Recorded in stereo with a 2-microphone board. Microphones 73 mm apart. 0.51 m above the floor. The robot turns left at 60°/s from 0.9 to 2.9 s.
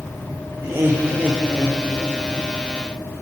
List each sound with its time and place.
0.6 s laughter: 125° right, 1.6 m; by 2.5 s 140° left, 1.6 m